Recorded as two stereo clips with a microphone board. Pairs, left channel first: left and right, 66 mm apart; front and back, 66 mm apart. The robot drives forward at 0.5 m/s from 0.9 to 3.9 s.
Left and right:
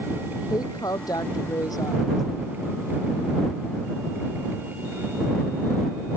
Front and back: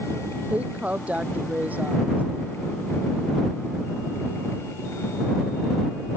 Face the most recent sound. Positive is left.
turn(degrees=115)